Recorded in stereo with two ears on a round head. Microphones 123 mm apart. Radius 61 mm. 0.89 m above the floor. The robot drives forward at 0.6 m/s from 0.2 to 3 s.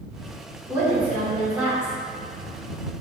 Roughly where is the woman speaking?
Centre.